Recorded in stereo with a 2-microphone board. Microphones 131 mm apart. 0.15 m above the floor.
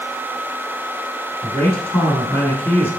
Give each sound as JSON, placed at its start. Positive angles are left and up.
{"t": 1.4, "sound": "a man speaking", "side_deg": 15, "distance_m": 1.0}